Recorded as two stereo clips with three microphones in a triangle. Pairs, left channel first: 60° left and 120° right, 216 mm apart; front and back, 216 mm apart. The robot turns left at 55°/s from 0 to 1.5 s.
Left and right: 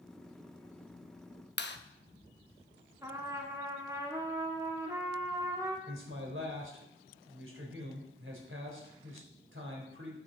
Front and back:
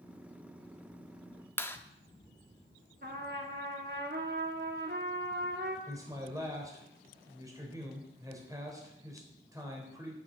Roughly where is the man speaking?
Right.